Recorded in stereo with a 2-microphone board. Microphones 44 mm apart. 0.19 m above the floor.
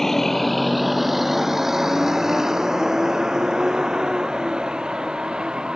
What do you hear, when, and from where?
0.0 s a vehicle: 10° left (ahead or behind); by 5.8 s 20° right (ahead or behind)